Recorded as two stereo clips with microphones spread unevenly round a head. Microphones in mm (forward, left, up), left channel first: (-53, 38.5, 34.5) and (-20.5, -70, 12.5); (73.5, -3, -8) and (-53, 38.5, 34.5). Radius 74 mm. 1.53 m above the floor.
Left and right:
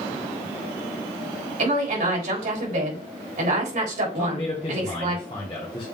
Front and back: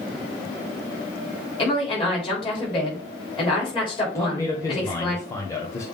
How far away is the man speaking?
About 1.3 m.